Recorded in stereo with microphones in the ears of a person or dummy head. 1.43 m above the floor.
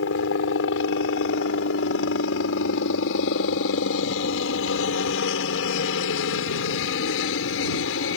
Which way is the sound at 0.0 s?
75° left (ahead or behind).